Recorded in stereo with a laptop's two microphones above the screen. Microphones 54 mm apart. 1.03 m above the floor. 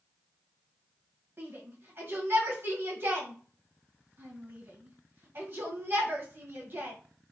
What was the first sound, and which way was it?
A shout, 45° right (ahead or behind).